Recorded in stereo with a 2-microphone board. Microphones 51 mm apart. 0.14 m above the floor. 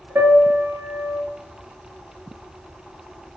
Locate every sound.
0.1 s a piano: 50° right (ahead or behind), 1.1 m